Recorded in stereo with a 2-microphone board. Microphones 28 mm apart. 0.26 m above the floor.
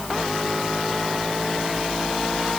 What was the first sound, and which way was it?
Only background noise.